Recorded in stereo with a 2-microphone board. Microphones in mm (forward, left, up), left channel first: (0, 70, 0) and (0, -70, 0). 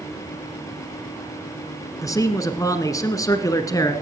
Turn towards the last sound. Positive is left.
turn(degrees=25)  # may be behind; listen again after turning